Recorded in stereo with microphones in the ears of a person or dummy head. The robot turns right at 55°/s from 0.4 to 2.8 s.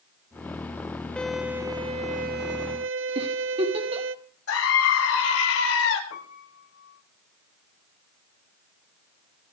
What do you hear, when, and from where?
1.2 s a violin: 175° left, 0.9 m; by 4.2 s 95° right, 0.9 m
3.1 s a giggle: 35° right (ahead or behind), 3 m
4.5 s a scream: 85° left, 6 m
6.1 s a piano: 85° left, 3.5 m